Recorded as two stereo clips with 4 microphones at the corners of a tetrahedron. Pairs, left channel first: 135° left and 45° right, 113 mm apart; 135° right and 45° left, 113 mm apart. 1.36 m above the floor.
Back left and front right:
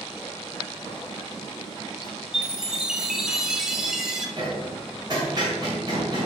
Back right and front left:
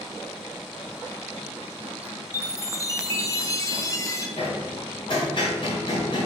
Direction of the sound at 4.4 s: 95° right.